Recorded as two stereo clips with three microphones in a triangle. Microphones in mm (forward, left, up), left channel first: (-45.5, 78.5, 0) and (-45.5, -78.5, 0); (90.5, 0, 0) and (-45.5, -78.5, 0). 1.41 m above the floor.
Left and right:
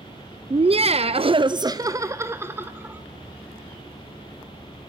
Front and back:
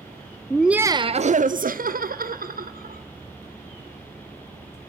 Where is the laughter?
50° right, 0.5 m; by 3.0 s 170° right, 1.6 m.